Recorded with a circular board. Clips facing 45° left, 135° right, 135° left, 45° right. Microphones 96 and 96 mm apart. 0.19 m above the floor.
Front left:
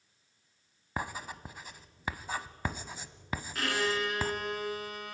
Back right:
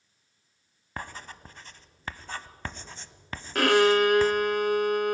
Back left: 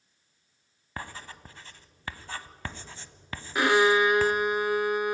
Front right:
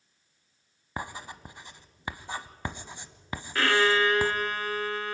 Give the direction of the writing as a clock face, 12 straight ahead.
12 o'clock.